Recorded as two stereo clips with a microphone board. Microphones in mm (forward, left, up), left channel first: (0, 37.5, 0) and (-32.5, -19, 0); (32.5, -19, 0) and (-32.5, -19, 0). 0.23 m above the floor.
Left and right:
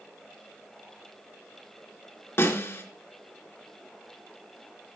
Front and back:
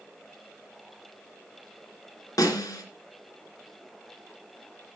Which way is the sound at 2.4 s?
15° left.